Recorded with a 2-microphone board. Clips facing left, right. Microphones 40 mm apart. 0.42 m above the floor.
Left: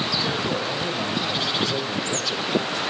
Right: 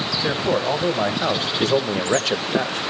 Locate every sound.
0.2 s a man speaking: 40° right (ahead or behind), 2 m; by 2.8 s 55° right (ahead or behind), 1.3 m